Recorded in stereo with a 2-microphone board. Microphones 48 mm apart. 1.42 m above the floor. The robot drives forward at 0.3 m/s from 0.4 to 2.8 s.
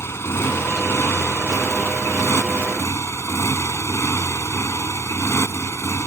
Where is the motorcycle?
65° left (ahead or behind); by 6.1 s 70° left (ahead or behind).